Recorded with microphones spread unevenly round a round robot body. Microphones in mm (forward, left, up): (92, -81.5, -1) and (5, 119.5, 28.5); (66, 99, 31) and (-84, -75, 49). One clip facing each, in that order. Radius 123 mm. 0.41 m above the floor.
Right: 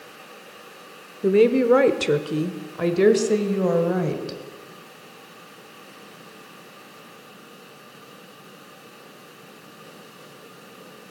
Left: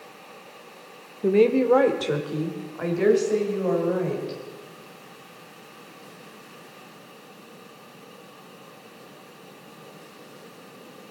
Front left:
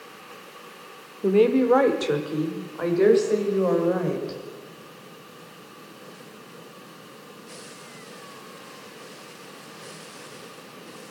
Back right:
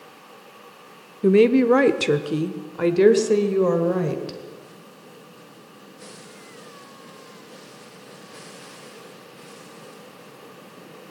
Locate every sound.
1.2 s a woman speaking: 115° right, 0.8 m; by 4.4 s 85° right, 2 m